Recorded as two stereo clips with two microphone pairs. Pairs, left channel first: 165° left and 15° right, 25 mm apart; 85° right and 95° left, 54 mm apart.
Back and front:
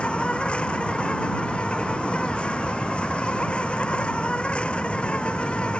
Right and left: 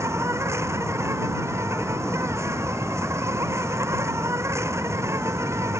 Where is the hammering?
I don't hear hammering.